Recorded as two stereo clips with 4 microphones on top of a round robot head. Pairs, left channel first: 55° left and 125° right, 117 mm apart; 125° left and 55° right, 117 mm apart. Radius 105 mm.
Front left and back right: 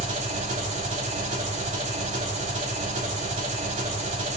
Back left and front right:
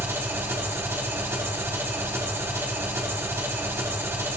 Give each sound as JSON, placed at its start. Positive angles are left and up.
{"t": 0.0, "sound": "an engine running", "azimuth_deg": -125, "distance_m": 3.5}